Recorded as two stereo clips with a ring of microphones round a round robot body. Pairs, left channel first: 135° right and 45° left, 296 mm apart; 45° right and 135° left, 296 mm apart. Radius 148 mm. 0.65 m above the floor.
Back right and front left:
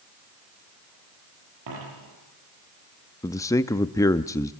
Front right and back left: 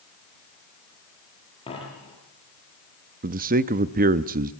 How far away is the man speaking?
About 0.6 m.